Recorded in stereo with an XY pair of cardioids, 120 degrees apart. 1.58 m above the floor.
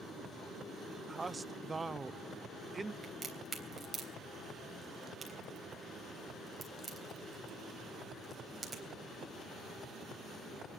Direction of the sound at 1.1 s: 15° right.